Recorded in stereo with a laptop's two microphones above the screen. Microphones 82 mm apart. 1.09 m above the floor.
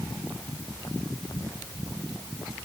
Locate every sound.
Only background noise.